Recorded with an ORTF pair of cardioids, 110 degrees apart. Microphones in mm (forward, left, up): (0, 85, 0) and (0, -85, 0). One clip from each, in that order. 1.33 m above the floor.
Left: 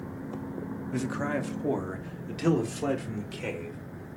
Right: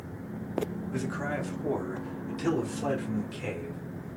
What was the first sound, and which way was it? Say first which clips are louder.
A man speaking: left 4 dB; 20° left.